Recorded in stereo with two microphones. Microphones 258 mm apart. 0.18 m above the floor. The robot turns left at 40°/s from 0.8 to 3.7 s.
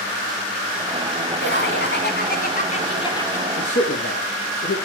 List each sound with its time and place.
1.4 s laughter: 95° left, 1.3 m; by 3.5 s 10° left, 1.3 m
3.6 s a man speaking: 60° left (ahead or behind), 3.5 m; by 4.8 s 65° left (ahead or behind), 3.5 m